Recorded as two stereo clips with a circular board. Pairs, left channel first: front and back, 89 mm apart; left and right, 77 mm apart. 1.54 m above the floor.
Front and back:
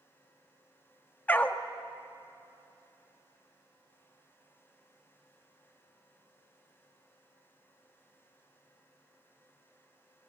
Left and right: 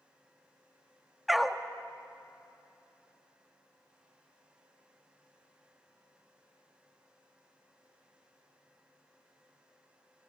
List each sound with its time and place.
1.3 s a dog barking: 5° right, 1.0 m